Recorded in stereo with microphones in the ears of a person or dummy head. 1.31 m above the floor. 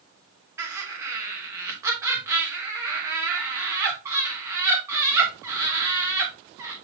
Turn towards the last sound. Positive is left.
turn(degrees=-15)  # may be behind; listen again after turning